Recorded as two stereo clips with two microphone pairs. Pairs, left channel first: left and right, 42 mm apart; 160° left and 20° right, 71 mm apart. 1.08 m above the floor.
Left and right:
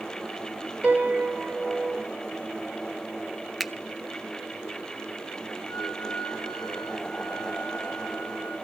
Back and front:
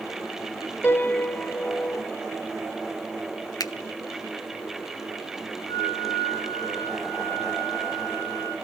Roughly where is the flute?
Behind.